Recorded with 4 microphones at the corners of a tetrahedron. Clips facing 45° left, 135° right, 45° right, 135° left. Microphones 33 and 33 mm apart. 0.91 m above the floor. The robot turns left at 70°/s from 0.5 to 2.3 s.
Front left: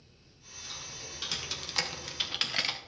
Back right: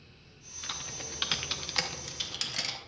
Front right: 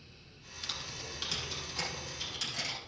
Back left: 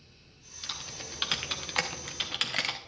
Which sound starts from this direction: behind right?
Typing on a keyboard, at 0.6 s.